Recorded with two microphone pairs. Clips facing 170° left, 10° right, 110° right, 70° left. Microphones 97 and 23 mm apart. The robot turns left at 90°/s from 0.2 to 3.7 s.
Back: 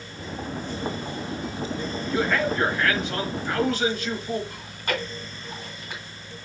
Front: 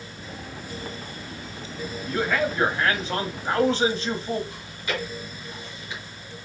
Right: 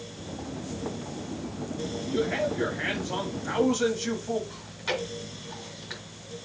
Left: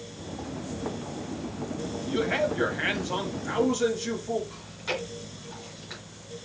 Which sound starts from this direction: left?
A man speaking, at 2.1 s.